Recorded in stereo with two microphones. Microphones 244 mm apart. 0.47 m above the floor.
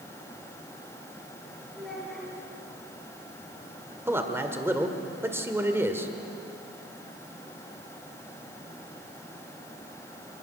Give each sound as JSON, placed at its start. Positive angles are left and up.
{"t": 1.7, "sound": "a child speaking", "side_deg": 0, "distance_m": 7.0}
{"t": 4.1, "sound": "a man speaking", "side_deg": -10, "distance_m": 1.9}